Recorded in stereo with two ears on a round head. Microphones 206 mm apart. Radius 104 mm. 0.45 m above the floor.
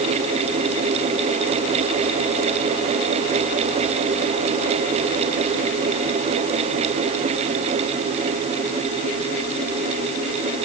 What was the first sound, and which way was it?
Only background noise.